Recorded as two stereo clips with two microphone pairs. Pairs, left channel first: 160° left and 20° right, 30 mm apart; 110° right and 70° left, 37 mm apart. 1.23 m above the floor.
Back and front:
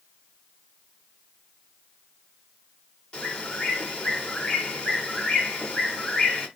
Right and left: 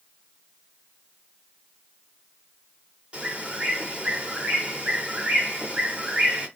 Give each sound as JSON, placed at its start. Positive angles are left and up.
{"t": 3.1, "sound": "a bird", "azimuth_deg": 120, "distance_m": 1.1}